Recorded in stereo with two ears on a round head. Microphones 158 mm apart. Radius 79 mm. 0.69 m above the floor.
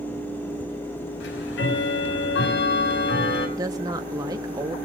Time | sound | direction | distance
1.2 | ticking | 70° left (ahead or behind) | 4.5 m
3.6 | a woman speaking | 20° right (ahead or behind) | 1.0 m